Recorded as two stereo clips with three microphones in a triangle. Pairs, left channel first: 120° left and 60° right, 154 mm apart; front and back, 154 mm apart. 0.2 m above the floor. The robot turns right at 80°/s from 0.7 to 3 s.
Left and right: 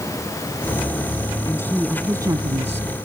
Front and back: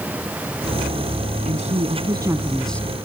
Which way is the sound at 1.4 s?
175° left.